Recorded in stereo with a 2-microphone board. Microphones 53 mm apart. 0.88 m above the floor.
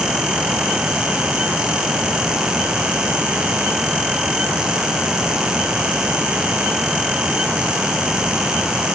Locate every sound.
Only background noise.